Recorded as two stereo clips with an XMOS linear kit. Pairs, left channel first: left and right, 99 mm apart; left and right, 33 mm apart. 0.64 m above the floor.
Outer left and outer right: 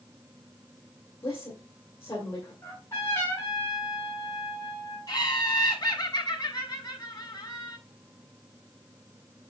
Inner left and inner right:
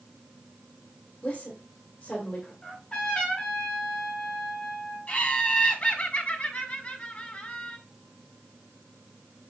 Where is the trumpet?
25° left (ahead or behind), 3.5 m.